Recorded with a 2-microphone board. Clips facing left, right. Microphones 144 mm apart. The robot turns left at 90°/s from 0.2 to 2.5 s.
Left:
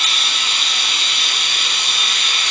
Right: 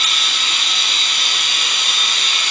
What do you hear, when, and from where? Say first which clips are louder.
0.0 s running water: even; 40° left, 1.8 m; by 2.5 s 170° right, 1.8 m